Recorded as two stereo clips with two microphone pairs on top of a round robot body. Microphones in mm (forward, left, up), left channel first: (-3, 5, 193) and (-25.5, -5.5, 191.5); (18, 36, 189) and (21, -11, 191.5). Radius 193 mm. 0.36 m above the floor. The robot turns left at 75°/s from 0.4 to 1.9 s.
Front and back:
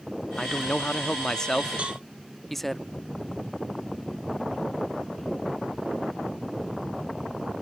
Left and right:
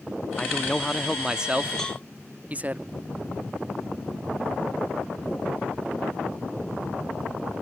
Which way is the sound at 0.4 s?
55° left.